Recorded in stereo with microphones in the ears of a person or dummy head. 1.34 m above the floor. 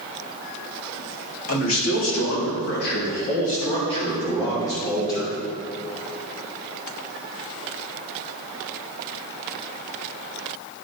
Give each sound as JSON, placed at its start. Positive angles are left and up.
{"t": 1.5, "sound": "a man speaking", "side_deg": 75, "distance_m": 3.5}